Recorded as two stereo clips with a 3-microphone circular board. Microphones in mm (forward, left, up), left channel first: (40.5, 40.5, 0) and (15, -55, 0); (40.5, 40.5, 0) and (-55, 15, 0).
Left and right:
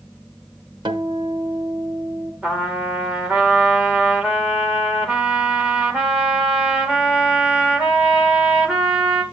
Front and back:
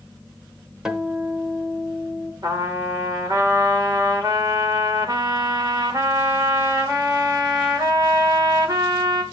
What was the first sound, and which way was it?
A guitar, 85° right.